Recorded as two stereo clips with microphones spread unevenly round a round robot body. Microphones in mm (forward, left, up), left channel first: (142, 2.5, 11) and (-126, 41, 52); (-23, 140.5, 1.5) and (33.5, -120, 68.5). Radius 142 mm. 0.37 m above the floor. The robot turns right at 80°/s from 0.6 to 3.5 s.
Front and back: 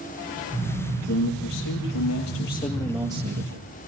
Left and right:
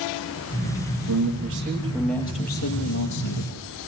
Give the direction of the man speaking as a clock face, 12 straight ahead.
2 o'clock.